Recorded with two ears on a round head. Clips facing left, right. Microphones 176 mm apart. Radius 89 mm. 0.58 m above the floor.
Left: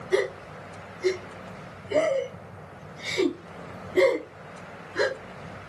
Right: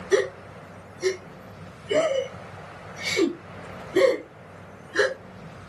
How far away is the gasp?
About 1.5 m.